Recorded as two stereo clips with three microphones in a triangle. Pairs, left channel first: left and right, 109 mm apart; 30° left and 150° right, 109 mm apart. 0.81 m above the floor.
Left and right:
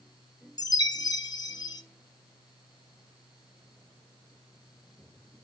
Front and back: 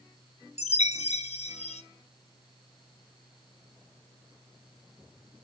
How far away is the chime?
About 0.6 m.